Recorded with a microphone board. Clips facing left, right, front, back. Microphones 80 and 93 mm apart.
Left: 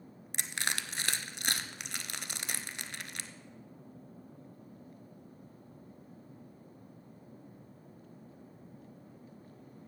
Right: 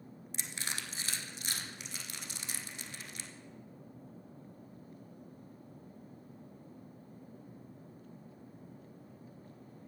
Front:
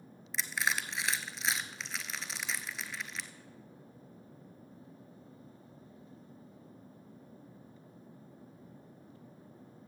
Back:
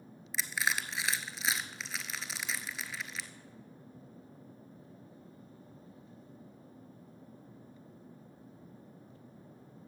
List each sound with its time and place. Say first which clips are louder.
0.3 s crushing: left 6 dB, even; 90° left, 0.7 m